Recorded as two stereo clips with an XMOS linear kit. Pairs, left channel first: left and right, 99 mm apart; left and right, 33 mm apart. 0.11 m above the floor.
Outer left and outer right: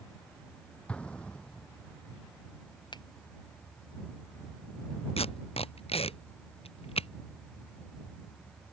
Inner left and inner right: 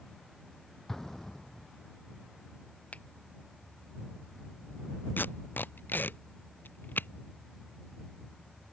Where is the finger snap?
50° left (ahead or behind).